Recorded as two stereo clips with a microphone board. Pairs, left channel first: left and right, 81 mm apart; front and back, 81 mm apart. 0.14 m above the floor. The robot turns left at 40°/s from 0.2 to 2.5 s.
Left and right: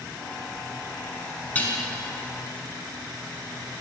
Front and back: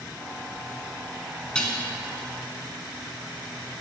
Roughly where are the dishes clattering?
Ahead left.